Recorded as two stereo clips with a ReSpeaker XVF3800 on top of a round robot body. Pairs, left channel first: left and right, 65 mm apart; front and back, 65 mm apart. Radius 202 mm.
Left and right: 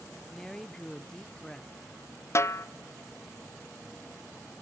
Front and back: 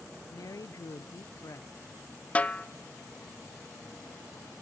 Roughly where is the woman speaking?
Ahead.